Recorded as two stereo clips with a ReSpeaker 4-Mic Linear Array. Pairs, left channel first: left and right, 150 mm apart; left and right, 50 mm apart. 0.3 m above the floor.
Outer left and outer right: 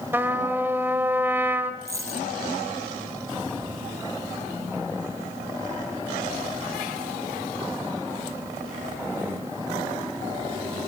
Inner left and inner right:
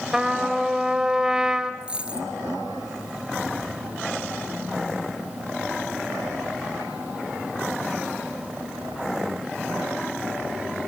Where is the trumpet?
15° right (ahead or behind), 1.5 m.